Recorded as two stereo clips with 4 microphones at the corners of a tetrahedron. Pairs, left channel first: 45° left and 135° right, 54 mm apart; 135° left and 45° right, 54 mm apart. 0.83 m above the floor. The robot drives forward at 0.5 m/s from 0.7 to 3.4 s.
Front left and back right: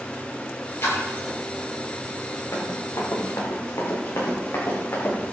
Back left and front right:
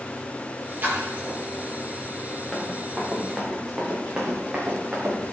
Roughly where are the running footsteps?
Ahead left.